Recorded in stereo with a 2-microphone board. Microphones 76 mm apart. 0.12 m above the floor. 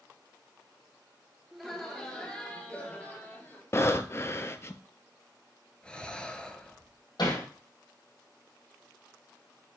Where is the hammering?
70° left (ahead or behind), 3 m.